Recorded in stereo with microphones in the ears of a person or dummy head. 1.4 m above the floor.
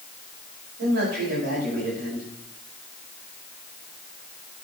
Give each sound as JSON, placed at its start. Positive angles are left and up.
{"t": 0.8, "sound": "a man speaking", "side_deg": -50, "distance_m": 6.0}